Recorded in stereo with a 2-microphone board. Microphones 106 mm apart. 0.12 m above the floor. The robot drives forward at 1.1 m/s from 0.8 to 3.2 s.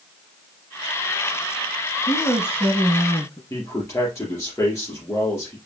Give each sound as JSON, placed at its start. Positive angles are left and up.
{"t": 2.1, "sound": "a woman speaking", "side_deg": 20, "distance_m": 2.5}
{"t": 3.5, "sound": "a man speaking", "side_deg": 30, "distance_m": 2.5}